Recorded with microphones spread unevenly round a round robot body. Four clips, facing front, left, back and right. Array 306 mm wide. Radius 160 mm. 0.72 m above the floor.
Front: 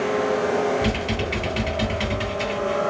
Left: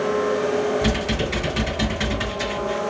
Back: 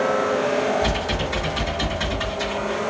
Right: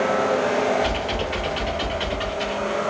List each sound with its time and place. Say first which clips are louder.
0.8 s typing on a keyboard: left 1 dB, back 1 dB; 65° left, 3 m